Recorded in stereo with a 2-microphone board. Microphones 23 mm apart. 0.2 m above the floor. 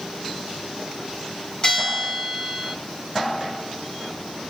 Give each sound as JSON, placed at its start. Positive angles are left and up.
{"t": 1.6, "sound": "a bell", "side_deg": 35, "distance_m": 3.0}